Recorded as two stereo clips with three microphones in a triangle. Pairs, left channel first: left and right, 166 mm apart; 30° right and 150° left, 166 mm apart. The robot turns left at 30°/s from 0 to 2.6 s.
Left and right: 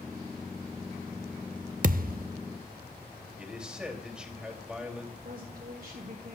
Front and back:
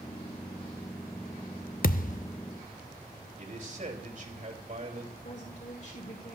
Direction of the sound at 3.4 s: 175° right.